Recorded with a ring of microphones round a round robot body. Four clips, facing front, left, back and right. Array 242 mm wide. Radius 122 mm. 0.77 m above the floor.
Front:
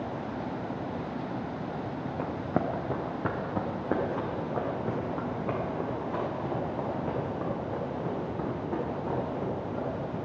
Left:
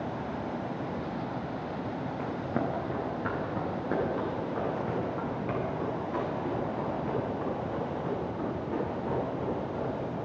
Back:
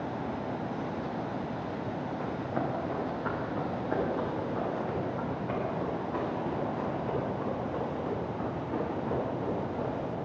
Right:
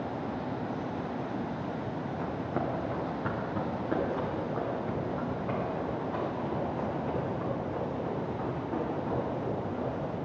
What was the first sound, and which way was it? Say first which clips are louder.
Running footsteps: left 1 dB, front 4 dB; 10° left.